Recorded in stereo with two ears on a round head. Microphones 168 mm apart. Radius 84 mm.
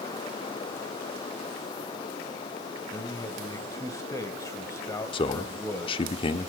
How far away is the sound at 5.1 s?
About 1.1 m.